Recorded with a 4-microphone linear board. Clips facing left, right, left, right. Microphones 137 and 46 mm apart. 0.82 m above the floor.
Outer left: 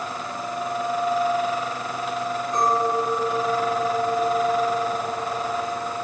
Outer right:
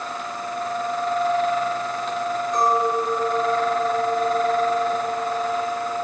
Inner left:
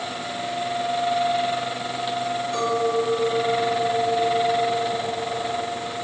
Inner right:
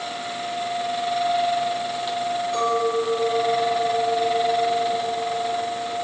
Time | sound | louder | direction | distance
2.5 | a clink | outer right 1 dB, even | 20° right (ahead or behind) | 6 m